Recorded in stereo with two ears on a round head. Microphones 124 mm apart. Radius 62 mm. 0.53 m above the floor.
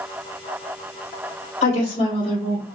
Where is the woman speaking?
50° left (ahead or behind), 1.3 m; by 2.7 s 35° left (ahead or behind), 2 m.